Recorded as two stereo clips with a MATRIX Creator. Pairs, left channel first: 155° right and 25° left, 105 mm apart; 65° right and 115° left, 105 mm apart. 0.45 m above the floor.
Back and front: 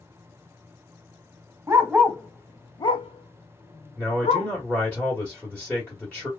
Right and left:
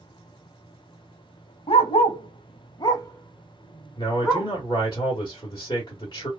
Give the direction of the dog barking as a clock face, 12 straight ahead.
2 o'clock.